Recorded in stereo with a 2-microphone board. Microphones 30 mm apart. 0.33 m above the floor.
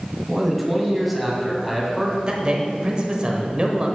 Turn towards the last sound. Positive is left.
turn(degrees=-30)  # may be behind; listen again after turning